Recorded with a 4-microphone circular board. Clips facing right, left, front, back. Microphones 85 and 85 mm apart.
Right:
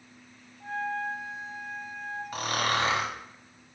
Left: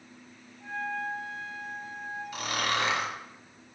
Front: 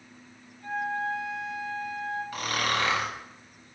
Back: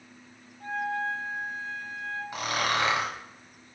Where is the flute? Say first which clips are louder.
Right 2 dB, even; 130° right, 1.7 m.